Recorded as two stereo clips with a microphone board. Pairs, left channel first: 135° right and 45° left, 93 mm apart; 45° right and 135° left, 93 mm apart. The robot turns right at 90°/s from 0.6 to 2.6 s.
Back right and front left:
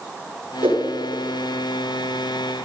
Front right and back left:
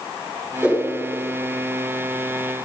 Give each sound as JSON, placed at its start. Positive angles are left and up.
{"t": 0.6, "sound": "a whoosh", "azimuth_deg": 55, "distance_m": 7.5}